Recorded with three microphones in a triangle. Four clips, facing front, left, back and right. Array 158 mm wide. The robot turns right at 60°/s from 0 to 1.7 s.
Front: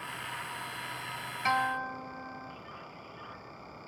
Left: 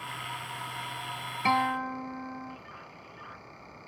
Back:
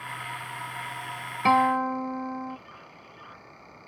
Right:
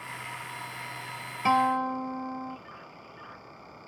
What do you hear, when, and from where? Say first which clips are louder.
1.4 s a guitar: right 3 dB, back 9 dB; 175° right; by 2.6 s 160° right